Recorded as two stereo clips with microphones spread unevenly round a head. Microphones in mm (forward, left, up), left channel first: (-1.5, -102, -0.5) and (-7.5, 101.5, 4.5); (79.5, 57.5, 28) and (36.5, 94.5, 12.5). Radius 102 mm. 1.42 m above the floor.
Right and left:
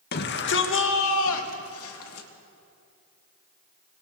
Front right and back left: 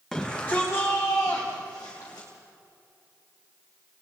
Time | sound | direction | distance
0.1 | a shout | 130° right | 1.7 m